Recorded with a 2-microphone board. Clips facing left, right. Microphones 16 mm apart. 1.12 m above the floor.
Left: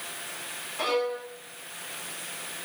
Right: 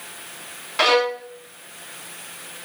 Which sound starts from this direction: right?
A violin, at 0.8 s.